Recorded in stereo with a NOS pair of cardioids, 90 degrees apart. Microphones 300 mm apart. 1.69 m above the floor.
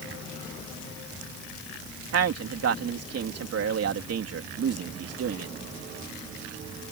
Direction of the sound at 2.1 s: 55° right.